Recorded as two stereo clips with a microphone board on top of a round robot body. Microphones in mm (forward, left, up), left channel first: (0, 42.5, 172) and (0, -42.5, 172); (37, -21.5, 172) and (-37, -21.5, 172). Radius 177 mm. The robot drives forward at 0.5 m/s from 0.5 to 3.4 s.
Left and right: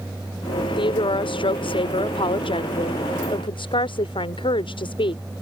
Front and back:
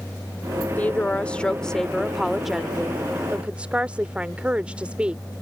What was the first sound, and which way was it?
A woman speaking, 70° left.